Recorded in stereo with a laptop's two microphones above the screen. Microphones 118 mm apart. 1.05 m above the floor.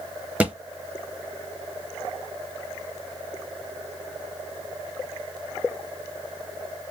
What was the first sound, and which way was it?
A thud, 15° right (ahead or behind).